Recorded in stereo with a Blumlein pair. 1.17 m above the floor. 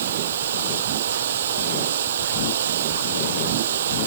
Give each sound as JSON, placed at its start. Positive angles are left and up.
{"t": 0.0, "sound": "running water", "azimuth_deg": -60}